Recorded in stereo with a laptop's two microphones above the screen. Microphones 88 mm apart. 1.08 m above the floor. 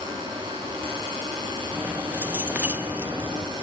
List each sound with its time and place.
0.0 s a fan: 65° right (ahead or behind), 6 m
1.7 s keys jangling: 20° right (ahead or behind), 0.9 m